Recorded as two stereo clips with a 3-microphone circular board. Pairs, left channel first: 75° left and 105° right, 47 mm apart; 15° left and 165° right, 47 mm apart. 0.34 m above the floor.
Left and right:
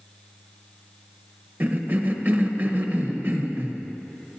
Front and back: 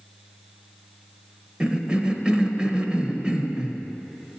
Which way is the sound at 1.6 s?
105° right.